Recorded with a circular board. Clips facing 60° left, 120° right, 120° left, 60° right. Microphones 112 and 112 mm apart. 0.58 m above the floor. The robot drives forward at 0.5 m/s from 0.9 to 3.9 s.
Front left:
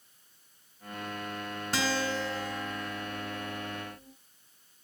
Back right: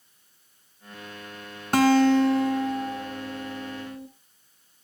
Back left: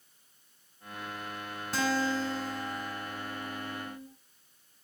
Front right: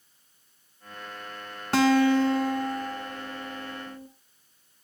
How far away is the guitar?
About 1.9 m.